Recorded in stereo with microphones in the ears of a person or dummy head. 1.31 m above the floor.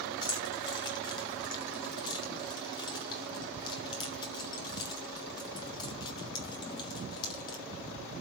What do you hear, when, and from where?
0.2 s keys jangling: 30° left (ahead or behind), 2.5 m